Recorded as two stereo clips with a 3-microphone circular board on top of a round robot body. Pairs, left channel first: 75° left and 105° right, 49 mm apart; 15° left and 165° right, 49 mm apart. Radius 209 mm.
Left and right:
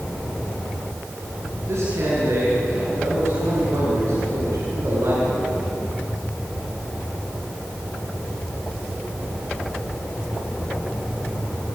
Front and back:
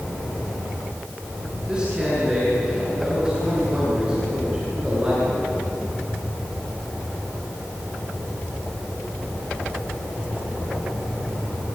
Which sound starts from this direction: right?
A man speaking, at 1.7 s.